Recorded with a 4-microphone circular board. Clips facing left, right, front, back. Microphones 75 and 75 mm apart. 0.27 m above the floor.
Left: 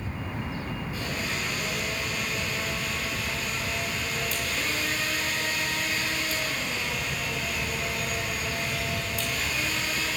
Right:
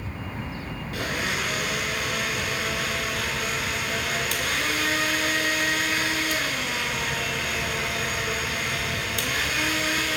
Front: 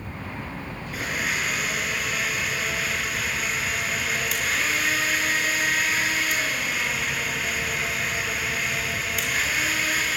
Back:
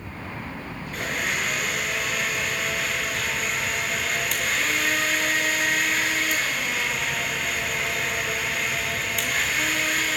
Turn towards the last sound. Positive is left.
turn(degrees=-90)